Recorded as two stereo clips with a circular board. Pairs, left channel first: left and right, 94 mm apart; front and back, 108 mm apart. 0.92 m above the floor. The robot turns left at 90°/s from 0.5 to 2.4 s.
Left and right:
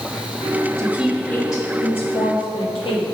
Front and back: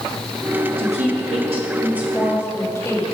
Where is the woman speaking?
150° right, 1.3 m; by 3.0 s 65° left, 1.3 m.